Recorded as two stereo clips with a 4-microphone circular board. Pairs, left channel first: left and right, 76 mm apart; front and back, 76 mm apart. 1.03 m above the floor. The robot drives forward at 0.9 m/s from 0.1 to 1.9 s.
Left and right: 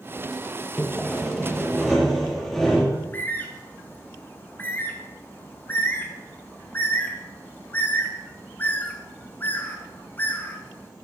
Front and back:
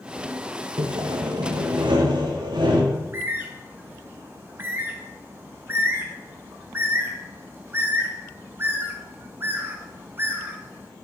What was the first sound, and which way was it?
Sawing, 170° left.